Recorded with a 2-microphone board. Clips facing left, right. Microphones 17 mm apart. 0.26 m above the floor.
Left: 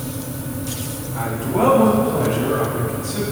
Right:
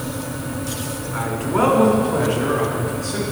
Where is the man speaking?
60° right (ahead or behind), 3 m.